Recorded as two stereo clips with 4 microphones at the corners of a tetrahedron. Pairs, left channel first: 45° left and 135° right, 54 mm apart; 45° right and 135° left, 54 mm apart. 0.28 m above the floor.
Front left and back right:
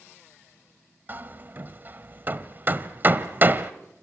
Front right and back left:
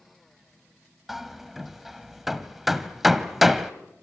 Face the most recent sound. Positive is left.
turn(degrees=-140)